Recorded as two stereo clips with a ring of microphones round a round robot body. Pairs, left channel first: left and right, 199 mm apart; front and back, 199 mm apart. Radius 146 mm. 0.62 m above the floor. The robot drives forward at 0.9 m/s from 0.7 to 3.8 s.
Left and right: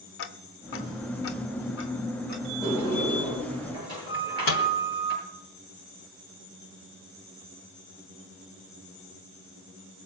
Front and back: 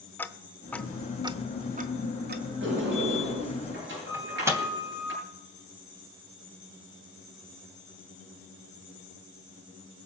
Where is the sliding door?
160° left, 8 m; by 5.1 s 165° left, 9 m.